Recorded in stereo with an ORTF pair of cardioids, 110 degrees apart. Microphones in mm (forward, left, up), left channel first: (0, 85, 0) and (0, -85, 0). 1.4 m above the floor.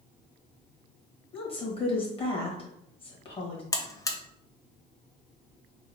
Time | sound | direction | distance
1.3 | a woman speaking | 30° left | 1.6 m
3.7 | a buzzer | 20° left | 0.6 m